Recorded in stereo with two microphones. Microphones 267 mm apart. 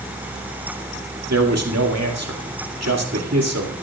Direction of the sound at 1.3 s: 70° right (ahead or behind).